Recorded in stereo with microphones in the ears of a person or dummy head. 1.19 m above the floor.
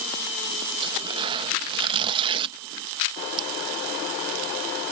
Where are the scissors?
30° right (ahead or behind).